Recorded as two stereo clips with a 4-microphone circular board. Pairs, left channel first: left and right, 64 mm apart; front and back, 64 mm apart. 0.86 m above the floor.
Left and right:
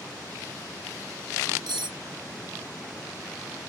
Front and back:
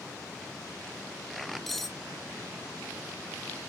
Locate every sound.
1.7 s cutlery clinking: 85° right